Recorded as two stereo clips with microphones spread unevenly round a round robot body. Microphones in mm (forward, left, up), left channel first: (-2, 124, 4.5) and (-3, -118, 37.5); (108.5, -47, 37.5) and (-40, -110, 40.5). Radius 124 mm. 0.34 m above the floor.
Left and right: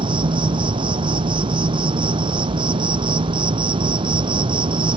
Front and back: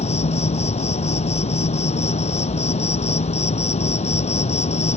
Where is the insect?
25° right.